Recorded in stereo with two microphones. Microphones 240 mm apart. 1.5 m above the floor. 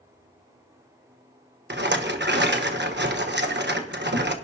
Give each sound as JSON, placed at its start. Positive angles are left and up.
{"t": 1.7, "sound": "a rattle", "side_deg": -45, "distance_m": 1.1}